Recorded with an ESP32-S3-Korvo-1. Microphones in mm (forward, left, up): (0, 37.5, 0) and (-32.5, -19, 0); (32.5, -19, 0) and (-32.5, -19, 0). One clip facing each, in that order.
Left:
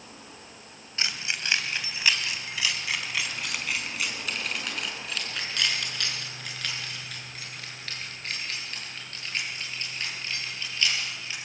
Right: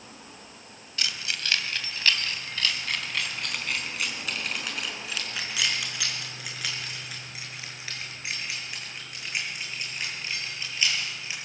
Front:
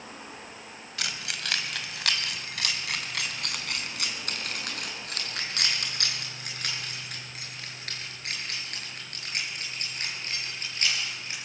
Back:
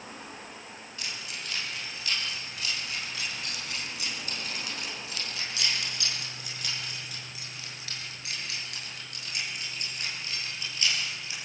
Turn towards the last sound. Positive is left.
turn(degrees=-45)